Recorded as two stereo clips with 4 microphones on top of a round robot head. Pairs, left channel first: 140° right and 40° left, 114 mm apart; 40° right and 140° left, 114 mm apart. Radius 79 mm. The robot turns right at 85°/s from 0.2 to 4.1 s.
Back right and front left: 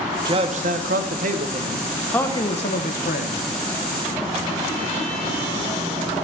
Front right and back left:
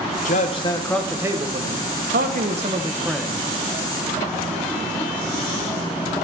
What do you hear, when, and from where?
0.2 s a man speaking: 20° right, 1.0 m; by 3.4 s 110° right, 1.0 m